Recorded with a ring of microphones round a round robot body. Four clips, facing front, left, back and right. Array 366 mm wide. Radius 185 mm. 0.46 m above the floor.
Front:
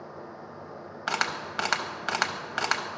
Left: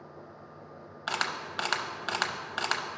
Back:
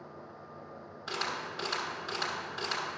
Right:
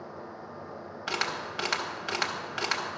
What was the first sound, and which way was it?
A camera shutter, 10° left.